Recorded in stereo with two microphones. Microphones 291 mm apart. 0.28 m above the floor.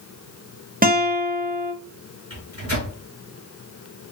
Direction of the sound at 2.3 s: 55° right (ahead or behind).